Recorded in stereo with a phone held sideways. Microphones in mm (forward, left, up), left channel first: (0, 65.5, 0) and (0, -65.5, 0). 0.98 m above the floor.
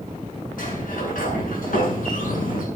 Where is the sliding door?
90° left, 8 m.